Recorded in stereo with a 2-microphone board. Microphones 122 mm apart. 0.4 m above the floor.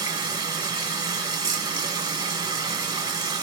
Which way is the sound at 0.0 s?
35° right (ahead or behind).